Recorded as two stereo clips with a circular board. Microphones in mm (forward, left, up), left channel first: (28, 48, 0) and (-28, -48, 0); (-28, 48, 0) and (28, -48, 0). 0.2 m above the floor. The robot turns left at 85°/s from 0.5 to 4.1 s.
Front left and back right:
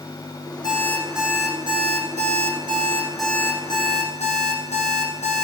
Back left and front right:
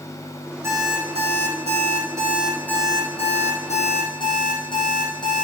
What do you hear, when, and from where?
0.6 s an alarm clock: 10° left, 4.5 m; by 5.4 s 75° left, 4.5 m